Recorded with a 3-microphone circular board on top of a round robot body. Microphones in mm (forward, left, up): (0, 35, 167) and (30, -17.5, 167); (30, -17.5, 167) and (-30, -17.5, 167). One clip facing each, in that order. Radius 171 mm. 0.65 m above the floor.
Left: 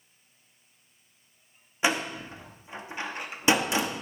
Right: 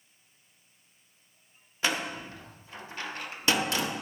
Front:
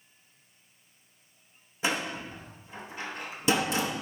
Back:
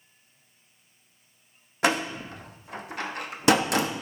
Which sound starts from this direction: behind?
A door slam, at 1.8 s.